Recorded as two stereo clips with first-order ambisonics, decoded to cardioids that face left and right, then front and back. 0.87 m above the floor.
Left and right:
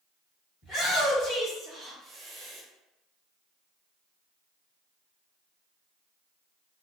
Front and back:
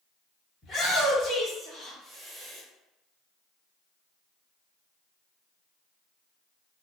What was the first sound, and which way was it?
A shout, 50° left.